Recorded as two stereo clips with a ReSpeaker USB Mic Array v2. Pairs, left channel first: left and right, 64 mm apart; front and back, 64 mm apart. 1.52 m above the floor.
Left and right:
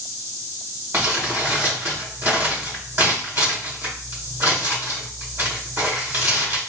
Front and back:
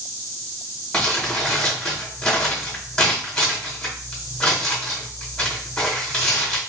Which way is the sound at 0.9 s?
65° right.